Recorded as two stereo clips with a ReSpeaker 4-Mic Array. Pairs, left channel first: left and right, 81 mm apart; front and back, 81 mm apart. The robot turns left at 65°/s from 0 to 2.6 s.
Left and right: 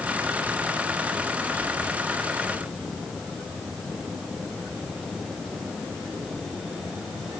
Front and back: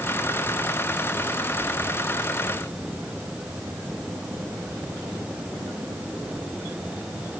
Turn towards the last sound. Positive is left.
No sound to turn to.